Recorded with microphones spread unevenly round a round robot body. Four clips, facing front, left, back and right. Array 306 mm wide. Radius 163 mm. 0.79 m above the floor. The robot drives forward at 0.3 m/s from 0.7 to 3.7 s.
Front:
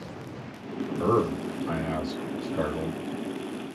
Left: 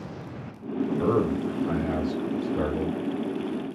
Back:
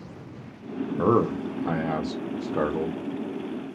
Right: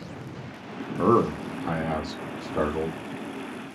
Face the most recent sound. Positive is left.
turn(degrees=-150)